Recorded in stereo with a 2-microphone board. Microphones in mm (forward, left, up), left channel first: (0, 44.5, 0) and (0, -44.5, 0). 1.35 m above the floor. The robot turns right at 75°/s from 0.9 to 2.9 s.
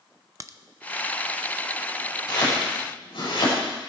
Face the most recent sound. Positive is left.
turn(degrees=80)